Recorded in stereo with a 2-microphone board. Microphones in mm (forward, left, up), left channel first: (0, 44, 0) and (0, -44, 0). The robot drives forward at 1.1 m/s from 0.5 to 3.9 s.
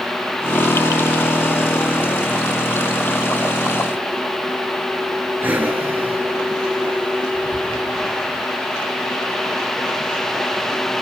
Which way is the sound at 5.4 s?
20° right (ahead or behind).